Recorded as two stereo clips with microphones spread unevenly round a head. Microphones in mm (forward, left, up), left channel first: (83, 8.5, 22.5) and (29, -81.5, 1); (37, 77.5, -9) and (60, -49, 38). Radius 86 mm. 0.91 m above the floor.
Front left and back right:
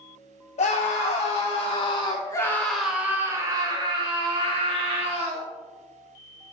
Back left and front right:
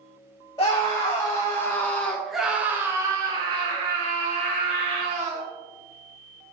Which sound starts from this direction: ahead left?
A scream, at 0.6 s.